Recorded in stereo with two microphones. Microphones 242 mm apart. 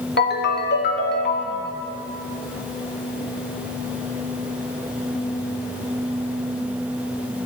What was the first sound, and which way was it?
A ringtone, 50° left (ahead or behind).